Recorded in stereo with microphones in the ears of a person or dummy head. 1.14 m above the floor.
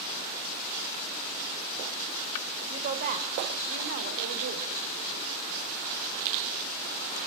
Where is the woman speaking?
40° right (ahead or behind), 4.5 m; by 4.7 s 60° right (ahead or behind), 3 m.